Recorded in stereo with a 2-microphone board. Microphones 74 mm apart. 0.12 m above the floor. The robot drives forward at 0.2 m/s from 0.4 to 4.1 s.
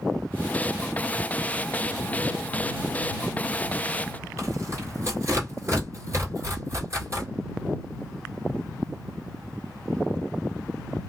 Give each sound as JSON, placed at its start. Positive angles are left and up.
{"t": 4.4, "sound": "tearing paper", "side_deg": -40, "distance_m": 1.7}